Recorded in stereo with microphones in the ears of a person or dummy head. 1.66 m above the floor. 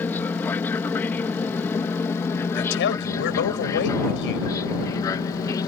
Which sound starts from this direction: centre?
An aircraft, at 0.0 s.